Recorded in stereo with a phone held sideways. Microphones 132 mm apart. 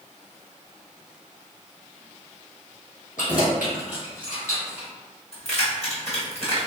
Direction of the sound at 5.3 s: 50° left (ahead or behind).